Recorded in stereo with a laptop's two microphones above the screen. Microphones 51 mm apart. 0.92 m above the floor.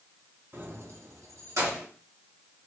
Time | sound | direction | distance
0.5 | keys jangling | 40° right (ahead or behind) | 0.9 m